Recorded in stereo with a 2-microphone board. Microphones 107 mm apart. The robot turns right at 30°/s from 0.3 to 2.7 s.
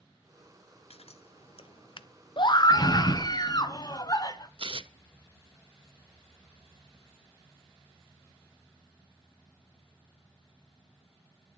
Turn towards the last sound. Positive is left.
turn(degrees=-55)  # may be behind; listen again after turning